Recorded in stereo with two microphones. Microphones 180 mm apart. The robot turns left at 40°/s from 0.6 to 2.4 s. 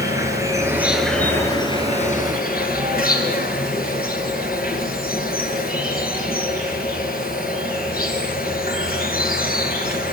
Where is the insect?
165° right, 6.5 m; by 10.1 s 125° left, 6.5 m.